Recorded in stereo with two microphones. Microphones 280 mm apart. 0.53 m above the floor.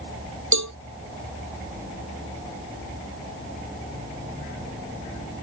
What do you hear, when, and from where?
0.5 s a cowbell: 80° right